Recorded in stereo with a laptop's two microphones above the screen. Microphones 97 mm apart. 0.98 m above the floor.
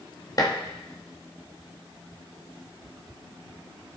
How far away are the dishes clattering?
About 0.9 m.